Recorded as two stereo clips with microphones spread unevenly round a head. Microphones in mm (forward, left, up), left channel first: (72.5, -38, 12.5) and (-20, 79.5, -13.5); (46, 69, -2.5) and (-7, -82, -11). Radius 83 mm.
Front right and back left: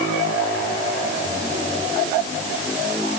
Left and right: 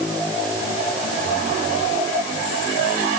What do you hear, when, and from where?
Only background noise.